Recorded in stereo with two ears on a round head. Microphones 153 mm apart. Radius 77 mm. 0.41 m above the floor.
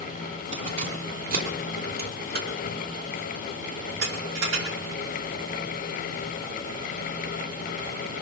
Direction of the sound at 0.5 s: 45° right (ahead or behind).